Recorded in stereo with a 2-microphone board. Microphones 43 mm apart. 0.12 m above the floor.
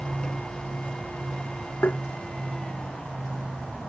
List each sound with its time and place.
1.8 s tapping: 55° left (ahead or behind)